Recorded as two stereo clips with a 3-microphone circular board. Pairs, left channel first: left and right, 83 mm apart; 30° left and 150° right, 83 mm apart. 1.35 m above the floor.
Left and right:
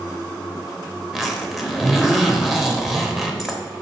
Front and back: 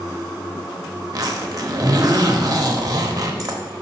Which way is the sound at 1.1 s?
Straight behind.